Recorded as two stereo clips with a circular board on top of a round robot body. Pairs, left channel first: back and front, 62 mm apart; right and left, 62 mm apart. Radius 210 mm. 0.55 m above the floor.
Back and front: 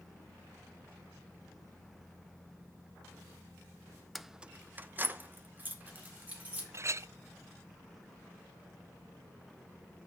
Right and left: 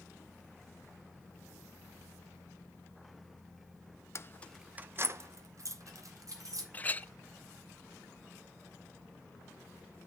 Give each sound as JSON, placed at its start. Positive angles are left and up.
{"t": 4.2, "sound": "keys jangling", "azimuth_deg": -90, "distance_m": 0.8}
{"t": 6.7, "sound": "a clink", "azimuth_deg": -30, "distance_m": 0.5}